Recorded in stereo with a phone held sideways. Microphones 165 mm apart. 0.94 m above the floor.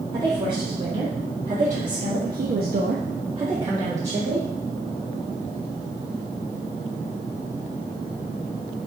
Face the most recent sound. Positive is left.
turn(degrees=-10)  # may be behind; listen again after turning